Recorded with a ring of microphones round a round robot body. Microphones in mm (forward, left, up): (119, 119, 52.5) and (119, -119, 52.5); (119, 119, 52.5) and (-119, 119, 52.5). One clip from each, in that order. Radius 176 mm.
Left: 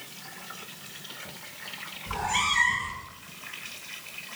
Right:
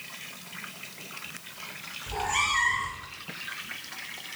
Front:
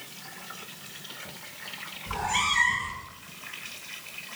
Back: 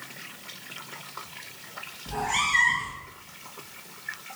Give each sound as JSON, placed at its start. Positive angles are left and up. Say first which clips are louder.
{"t": 2.1, "sound": "a cat meowing", "louder": "even, back 1 dB", "azimuth_deg": 145, "distance_m": 6.5}